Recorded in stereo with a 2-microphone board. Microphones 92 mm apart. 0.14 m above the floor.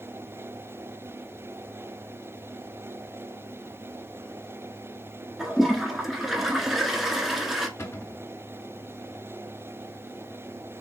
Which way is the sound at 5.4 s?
5° right (ahead or behind).